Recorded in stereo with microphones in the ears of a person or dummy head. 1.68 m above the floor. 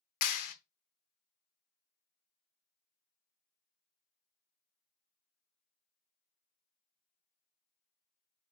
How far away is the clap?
About 0.6 m.